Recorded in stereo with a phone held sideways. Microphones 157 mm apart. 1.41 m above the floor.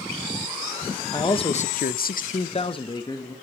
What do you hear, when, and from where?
1.1 s a man speaking: 25° left (ahead or behind), 1.3 m; by 3.4 s 20° left (ahead or behind), 2.0 m